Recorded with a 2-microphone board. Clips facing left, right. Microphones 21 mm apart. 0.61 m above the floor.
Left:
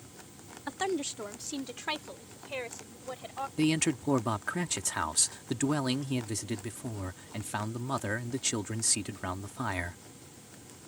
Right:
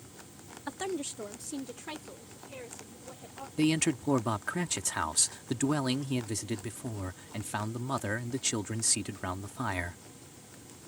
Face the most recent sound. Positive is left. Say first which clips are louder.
# right 1 dB
turn(degrees=10)  # may be behind; listen again after turning